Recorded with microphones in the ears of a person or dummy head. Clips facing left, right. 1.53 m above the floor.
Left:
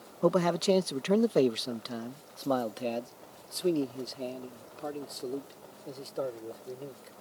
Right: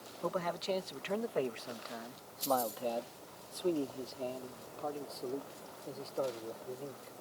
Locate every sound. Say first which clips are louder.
0.2 s a man speaking: left 11 dB; 70° left (ahead or behind); by 7.1 s 20° left (ahead or behind)